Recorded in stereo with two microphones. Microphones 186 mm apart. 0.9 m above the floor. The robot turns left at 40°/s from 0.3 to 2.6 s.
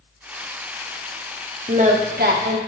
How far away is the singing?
About 0.8 m.